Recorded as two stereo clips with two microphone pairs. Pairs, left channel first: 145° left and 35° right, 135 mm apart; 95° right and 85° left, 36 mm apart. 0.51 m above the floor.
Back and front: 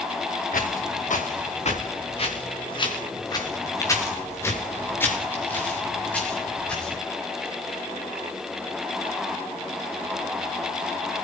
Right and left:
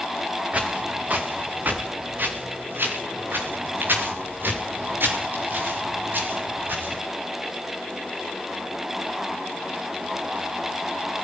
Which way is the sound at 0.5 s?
140° left.